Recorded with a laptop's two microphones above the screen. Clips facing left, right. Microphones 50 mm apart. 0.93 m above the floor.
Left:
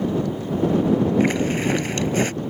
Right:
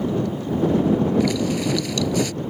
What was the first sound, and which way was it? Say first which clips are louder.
A zipper: left 1 dB; 40° left (ahead or behind).